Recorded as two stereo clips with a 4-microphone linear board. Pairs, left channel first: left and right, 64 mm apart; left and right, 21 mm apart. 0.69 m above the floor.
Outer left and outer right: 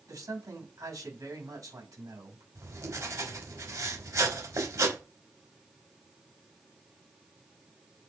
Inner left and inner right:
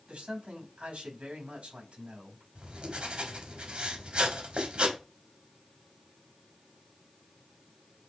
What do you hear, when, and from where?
0.1 s a man speaking: 70° right (ahead or behind), 5 m
2.5 s writing: 65° right (ahead or behind), 3 m